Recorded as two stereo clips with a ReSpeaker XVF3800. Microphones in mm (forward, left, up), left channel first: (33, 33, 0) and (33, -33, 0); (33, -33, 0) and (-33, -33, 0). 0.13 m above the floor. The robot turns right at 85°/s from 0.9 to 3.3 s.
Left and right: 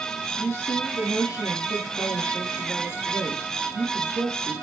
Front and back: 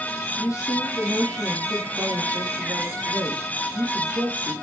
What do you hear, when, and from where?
0.4 s a woman speaking: 30° left, 5 m; by 4.5 s 125° right, 5 m